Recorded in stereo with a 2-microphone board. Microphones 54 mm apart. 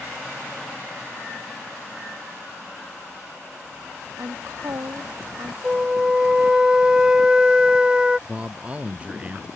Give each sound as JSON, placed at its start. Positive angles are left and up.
{"t": 4.2, "sound": "a woman speaking", "side_deg": -70}
{"t": 5.6, "sound": "a flute", "side_deg": -15}
{"t": 8.3, "sound": "a man speaking", "side_deg": -25}